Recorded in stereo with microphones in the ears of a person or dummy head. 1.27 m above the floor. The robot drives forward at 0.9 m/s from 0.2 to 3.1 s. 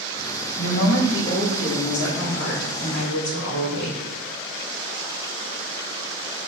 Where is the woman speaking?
65° left (ahead or behind), 3 m.